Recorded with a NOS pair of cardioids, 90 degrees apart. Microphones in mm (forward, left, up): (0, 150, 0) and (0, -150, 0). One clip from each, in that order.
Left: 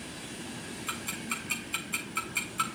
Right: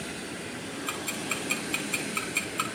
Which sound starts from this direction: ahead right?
Ticking, at 0.9 s.